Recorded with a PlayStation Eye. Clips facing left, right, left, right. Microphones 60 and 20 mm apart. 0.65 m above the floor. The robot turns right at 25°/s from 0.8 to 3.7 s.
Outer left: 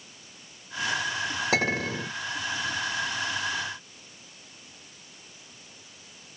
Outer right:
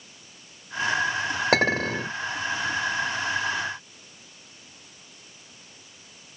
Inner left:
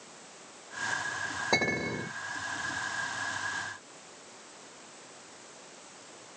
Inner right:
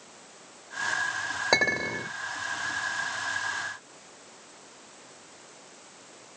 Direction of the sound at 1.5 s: 60° right (ahead or behind).